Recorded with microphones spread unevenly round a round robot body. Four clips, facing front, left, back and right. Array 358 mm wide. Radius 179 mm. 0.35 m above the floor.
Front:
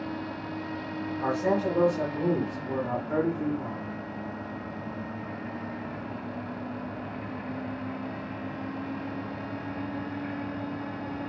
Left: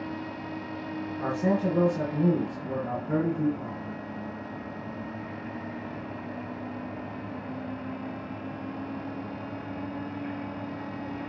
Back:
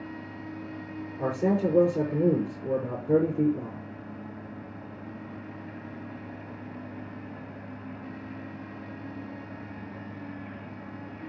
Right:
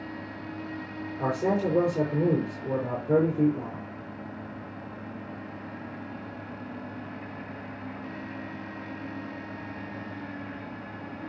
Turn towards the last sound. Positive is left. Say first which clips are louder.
# right 1 dB, back 1 dB
turn(degrees=-160)